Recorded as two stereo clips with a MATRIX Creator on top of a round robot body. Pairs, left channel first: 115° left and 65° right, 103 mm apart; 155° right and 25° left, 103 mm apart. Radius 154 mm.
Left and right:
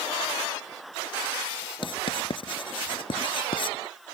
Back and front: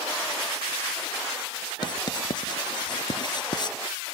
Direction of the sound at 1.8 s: 155° left.